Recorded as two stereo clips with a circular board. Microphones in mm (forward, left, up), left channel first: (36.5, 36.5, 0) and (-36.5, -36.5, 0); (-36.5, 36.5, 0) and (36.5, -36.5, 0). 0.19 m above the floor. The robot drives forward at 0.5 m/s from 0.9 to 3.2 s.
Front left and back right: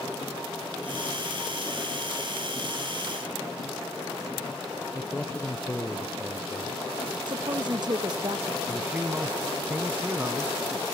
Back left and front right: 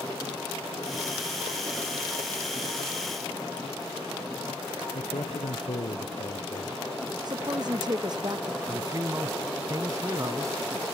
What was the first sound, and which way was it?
A man speaking, 120° left.